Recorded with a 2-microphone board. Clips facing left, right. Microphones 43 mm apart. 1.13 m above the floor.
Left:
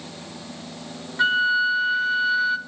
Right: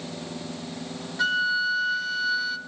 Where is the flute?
20° left (ahead or behind), 0.8 m.